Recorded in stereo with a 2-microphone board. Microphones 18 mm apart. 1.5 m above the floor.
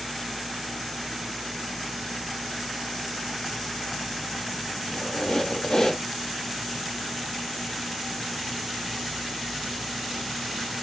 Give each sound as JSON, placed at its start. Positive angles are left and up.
{"t": 4.9, "sound": "a squeak", "side_deg": 45, "distance_m": 1.0}